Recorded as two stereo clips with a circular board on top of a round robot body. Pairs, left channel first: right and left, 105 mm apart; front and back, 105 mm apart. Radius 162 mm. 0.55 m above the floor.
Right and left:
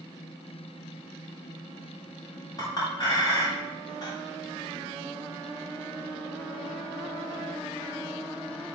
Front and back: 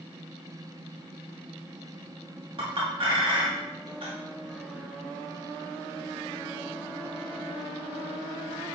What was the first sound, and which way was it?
A clink, 145° right.